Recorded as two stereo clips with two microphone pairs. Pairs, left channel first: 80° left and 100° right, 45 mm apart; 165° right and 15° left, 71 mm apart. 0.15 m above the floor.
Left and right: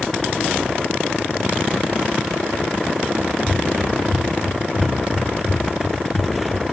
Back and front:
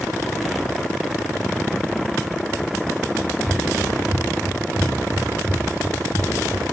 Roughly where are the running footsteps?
Behind right.